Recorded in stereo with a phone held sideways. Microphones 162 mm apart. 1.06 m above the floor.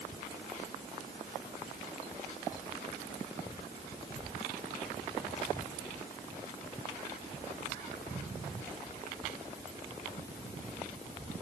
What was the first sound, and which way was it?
Only background noise.